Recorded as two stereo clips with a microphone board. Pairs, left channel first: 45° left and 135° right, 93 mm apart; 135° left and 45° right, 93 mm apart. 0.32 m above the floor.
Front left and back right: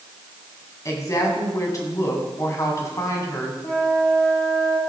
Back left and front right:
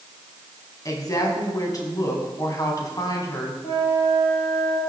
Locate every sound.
0.8 s a woman speaking: 95° left, 2.5 m
3.6 s a flute: 115° left, 2.5 m